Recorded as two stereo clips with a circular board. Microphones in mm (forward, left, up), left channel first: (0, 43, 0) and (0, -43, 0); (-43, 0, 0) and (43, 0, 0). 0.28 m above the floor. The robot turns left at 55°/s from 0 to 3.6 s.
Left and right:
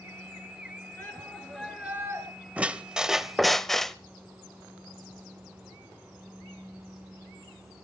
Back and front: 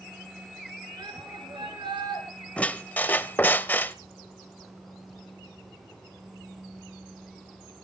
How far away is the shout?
About 4.5 m.